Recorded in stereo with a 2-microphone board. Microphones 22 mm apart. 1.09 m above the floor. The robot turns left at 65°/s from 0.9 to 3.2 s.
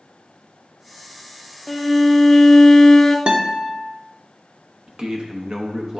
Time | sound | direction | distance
1.7 | a violin | centre (ahead or behind) | 0.5 m
3.3 | a guitar | 55° right (ahead or behind) | 0.9 m
4.9 | a man speaking | 40° right (ahead or behind) | 0.9 m